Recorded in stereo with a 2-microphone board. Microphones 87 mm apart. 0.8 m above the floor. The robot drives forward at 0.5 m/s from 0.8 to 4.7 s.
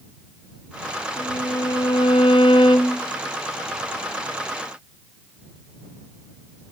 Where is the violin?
45° left (ahead or behind), 0.9 m; by 3.0 s 55° left (ahead or behind), 0.8 m.